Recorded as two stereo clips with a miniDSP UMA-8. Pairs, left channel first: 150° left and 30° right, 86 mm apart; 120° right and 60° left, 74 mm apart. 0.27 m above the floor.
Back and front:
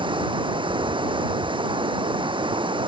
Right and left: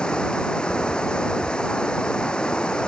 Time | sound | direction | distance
0.0 | running water | 40° right | ?